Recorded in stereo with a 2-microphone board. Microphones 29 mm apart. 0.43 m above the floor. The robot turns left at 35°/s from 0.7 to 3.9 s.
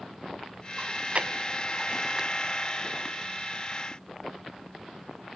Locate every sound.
0.8 s chewing: 65° right (ahead or behind), 1.0 m; by 3.2 s 20° left (ahead or behind), 1.0 m